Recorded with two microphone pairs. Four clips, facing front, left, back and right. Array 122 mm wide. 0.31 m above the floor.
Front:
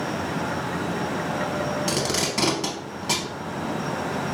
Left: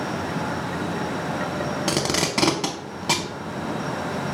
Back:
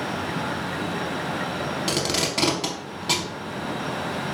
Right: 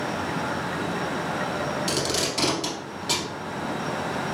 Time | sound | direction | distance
1.9 | tape being pulled | 100° left | 0.5 m